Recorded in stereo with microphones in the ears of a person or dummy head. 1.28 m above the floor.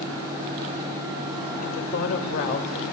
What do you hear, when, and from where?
1.6 s a woman speaking: 45° left (ahead or behind), 2 m